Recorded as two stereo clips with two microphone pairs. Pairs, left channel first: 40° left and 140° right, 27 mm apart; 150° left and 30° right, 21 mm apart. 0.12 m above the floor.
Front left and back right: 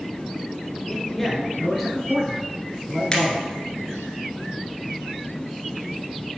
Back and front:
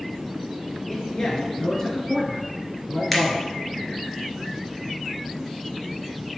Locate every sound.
0.9 s a man speaking: 110° left, 2 m; by 3.5 s 175° right, 1.7 m
3.1 s a finger snap: 90° left, 1.9 m